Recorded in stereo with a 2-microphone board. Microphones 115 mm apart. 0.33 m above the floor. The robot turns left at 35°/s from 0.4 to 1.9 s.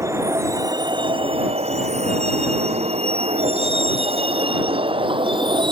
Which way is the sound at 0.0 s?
25° right (ahead or behind).